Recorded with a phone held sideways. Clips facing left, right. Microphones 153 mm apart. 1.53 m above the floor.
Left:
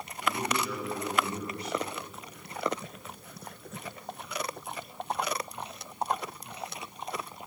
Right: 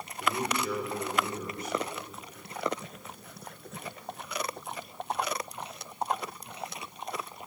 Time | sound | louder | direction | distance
0.2 | a man speaking | even | 50° right (ahead or behind) | 5.5 m